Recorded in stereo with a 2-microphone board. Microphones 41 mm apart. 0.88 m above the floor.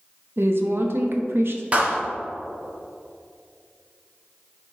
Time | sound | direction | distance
0.4 | a woman speaking | 65° right (ahead or behind) | 1.0 m
1.7 | a clap | 30° right (ahead or behind) | 1.2 m